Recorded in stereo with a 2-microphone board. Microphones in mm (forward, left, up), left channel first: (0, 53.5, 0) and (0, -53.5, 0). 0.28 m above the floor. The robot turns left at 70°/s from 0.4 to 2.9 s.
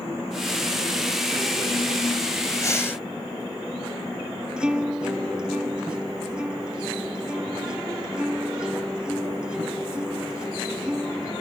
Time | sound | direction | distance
2.6 | breathing | 35° left (ahead or behind) | ?
4.6 | a guitar | 10° right (ahead or behind) | ?